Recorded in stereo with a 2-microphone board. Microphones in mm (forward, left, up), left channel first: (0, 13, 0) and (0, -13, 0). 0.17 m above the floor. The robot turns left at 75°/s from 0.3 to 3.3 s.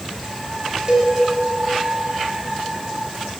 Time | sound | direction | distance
0.9 | a cowbell | 35° right (ahead or behind) | 1.8 m